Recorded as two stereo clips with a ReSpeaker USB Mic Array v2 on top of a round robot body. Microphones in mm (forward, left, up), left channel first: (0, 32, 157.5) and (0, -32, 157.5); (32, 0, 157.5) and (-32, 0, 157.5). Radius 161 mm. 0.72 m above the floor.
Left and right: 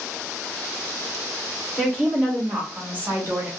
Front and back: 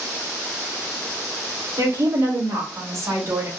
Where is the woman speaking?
175° right, 1.9 m; by 3.5 s 140° right, 2.5 m.